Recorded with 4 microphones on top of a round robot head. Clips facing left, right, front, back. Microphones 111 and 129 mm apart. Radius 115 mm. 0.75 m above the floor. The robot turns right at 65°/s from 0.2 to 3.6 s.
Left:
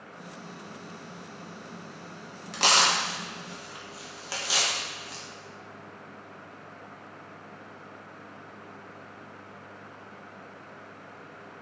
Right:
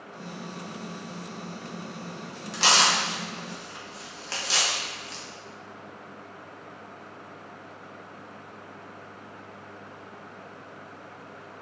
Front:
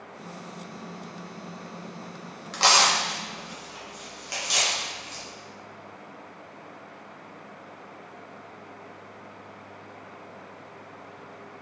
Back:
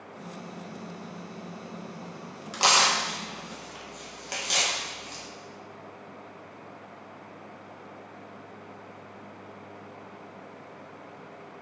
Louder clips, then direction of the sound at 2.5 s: Right 1 dB, front 2 dB; 100° left.